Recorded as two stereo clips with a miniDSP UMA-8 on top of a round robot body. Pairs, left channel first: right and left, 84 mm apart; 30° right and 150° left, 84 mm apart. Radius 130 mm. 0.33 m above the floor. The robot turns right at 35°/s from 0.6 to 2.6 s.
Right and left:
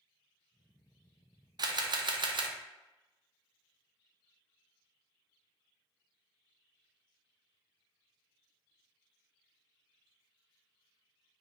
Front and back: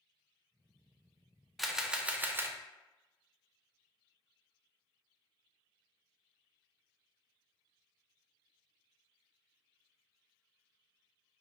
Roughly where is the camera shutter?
Ahead left.